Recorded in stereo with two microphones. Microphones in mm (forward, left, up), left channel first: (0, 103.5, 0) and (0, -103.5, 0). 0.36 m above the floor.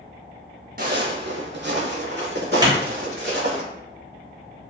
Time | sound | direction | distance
0.8 | footsteps | 50° right (ahead or behind) | 0.6 m
2.6 | a clap | 20° right (ahead or behind) | 0.8 m